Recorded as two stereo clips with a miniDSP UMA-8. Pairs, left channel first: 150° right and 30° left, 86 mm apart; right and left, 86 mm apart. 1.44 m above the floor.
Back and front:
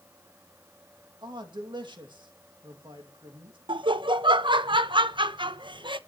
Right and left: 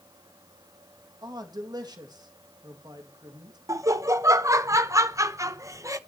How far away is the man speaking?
About 2.5 m.